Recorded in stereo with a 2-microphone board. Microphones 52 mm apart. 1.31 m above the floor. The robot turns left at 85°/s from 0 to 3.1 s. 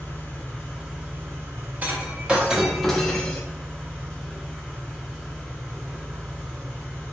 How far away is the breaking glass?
About 0.7 m.